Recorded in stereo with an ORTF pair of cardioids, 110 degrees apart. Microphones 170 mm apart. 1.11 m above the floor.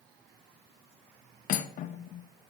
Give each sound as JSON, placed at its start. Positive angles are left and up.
{"t": 1.5, "sound": "cutlery clinking", "azimuth_deg": 55, "distance_m": 0.5}